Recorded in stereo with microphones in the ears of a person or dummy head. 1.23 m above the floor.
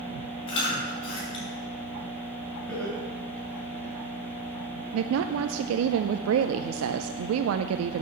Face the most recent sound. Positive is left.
turn(degrees=-75)  # may be behind; listen again after turning